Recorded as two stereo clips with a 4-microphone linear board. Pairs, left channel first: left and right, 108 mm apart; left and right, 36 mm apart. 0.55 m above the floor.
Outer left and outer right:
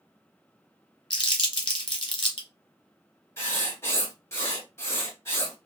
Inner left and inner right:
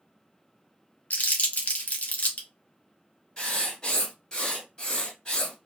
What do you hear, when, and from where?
1.1 s crumpling: 60° left (ahead or behind), 1.1 m
3.4 s writing: 25° left (ahead or behind), 1.8 m